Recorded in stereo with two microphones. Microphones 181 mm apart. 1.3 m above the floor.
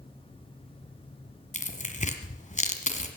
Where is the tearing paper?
45° left (ahead or behind), 1.6 m.